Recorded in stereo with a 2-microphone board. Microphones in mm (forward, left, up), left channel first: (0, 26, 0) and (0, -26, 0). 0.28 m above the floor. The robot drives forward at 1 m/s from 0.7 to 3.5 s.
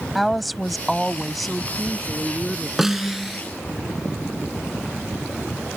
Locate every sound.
0.1 s a woman speaking: centre (ahead or behind)
2.8 s a snare drum: 5° right (ahead or behind)